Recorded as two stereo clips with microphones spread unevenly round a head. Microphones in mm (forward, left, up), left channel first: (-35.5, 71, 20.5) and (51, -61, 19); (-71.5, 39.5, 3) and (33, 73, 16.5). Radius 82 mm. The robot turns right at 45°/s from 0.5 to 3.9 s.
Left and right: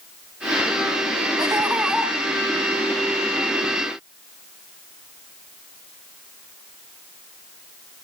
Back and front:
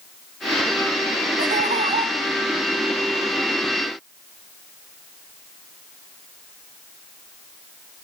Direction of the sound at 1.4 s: 10° left.